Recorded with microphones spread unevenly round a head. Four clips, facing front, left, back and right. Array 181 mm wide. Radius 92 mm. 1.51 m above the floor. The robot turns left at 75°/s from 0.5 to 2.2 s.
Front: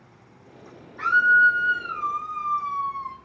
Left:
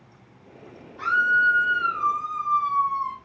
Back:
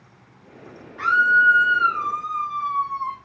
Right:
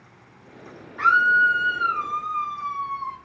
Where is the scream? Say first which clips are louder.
Right 3 dB, back 1 dB; 110° right, 2.5 m; by 3.2 s 160° left, 2.5 m.